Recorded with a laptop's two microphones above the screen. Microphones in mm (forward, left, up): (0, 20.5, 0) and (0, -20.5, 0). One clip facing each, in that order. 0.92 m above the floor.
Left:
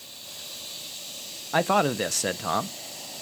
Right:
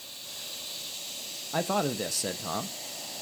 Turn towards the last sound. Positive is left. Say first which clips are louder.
# left 6 dB
turn(degrees=55)  # may be behind; listen again after turning